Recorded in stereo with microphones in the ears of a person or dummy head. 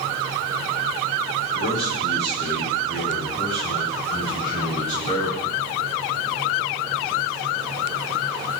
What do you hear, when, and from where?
1.5 s a man speaking: 45° left (ahead or behind), 7 m; by 5.5 s 30° left (ahead or behind), 8.5 m